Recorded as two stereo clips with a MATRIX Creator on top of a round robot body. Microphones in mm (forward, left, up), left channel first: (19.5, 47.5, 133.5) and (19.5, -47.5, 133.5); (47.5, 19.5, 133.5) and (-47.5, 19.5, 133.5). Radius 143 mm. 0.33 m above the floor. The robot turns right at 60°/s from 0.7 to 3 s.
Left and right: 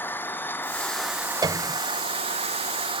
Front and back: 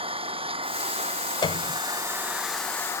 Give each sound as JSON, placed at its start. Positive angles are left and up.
{"t": 0.0, "sound": "an engine running", "azimuth_deg": 160}
{"t": 1.4, "sound": "a piano", "azimuth_deg": -40}